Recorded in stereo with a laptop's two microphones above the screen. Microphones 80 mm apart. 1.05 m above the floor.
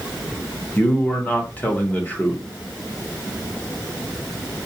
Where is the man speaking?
20° left (ahead or behind), 0.7 m.